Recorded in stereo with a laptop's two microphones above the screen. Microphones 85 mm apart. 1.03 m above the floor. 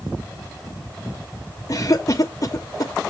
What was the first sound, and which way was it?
A cough, 40° left (ahead or behind).